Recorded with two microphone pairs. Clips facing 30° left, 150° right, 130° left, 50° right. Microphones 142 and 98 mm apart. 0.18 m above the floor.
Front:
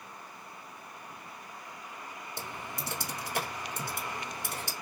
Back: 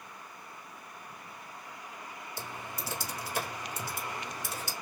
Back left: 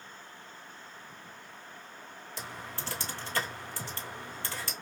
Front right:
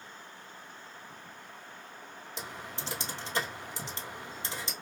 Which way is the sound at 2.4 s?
15° left.